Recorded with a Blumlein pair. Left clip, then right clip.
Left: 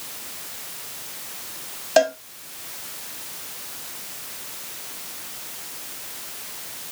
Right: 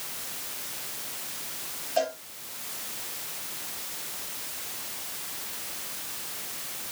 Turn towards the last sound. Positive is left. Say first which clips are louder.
# left 10 dB
turn(degrees=50)